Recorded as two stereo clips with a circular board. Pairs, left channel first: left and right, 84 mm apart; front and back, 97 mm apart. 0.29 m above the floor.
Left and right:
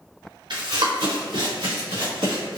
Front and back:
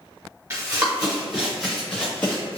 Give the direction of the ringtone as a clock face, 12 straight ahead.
No ringtone in this recording.